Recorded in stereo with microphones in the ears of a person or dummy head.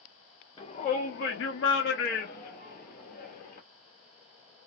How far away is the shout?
About 0.5 m.